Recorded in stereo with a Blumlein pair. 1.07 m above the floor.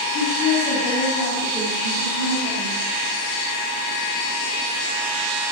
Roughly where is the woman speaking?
Ahead left.